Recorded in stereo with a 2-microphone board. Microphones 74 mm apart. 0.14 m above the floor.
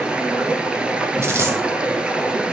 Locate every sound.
0.0 s running water: 15° right (ahead or behind), 0.8 m
1.2 s a dropped coin: 35° right (ahead or behind), 1.6 m